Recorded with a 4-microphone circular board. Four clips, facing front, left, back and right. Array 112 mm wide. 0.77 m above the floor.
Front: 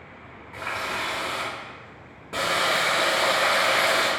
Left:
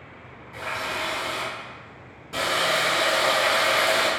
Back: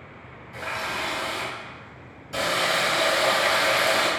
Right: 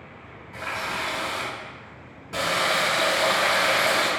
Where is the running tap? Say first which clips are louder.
Even, even; straight ahead, 1.0 m.